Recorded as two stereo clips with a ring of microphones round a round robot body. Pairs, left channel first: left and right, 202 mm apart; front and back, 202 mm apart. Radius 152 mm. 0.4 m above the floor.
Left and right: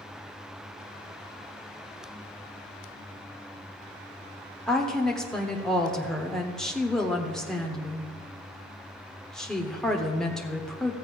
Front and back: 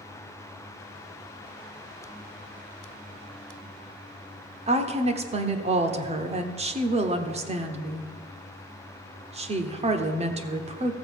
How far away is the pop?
I don't hear a pop.